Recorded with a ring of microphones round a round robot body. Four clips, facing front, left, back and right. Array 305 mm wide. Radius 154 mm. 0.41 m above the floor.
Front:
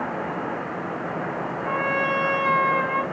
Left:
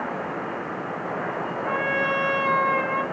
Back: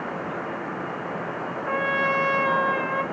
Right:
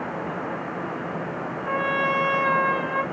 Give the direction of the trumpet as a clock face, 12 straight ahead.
12 o'clock.